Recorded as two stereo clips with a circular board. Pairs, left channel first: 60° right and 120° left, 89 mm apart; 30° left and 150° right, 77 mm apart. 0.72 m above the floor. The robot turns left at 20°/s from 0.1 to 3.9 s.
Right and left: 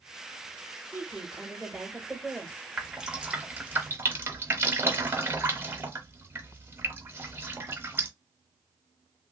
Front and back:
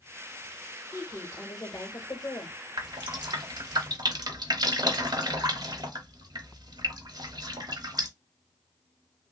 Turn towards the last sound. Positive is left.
turn(degrees=-175)